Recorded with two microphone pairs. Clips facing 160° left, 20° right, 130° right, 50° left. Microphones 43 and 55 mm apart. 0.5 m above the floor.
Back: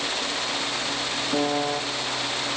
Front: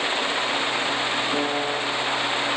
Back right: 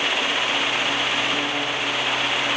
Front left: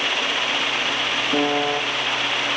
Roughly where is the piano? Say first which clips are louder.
Even, front left 4 dB; left.